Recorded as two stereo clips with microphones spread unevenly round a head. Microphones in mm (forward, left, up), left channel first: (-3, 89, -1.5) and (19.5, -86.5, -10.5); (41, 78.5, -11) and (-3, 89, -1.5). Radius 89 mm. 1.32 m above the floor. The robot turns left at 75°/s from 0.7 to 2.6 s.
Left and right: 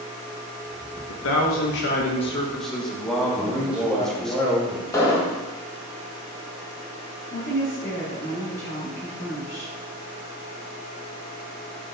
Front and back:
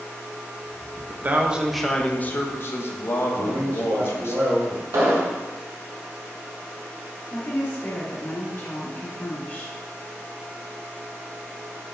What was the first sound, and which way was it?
A man speaking, 120° left.